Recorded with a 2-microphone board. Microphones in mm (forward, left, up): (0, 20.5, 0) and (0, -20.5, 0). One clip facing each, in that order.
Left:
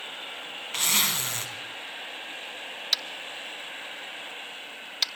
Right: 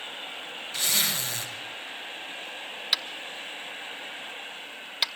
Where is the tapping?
15° right (ahead or behind), 0.8 m.